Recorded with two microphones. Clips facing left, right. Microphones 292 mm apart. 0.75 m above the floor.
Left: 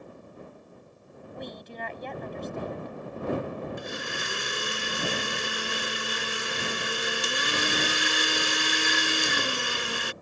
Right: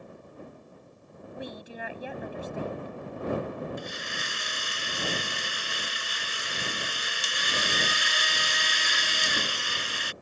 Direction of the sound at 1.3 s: 10° right (ahead or behind).